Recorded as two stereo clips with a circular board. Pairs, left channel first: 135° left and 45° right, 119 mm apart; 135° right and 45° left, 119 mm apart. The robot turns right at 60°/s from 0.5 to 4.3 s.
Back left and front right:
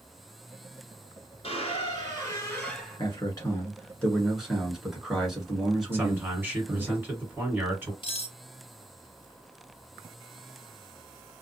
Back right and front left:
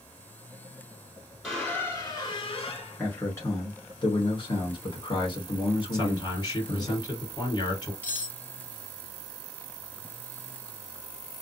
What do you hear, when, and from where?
1.4 s a squeak: 135° left, 1.4 m; by 3.0 s 130° right, 1.4 m
3.0 s a man speaking: 150° left, 1.4 m; by 6.9 s 130° right, 1.4 m
5.9 s a man speaking: 110° right, 2 m
8.0 s cutlery clinking: 155° left, 1.3 m